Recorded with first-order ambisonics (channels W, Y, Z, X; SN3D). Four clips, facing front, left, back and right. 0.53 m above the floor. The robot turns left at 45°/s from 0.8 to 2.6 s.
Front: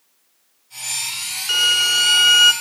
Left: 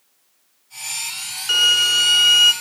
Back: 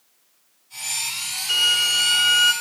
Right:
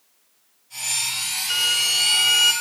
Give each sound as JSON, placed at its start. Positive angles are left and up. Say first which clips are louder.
{"t": 1.5, "sound": "a violin", "louder": "left 6 dB, front 2 dB", "azimuth_deg": 60, "distance_m": 1.0}